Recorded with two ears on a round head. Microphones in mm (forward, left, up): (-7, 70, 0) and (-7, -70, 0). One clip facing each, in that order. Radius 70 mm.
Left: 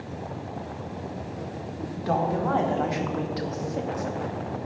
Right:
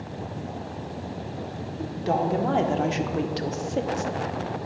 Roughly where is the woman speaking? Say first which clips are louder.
Right 1 dB; right.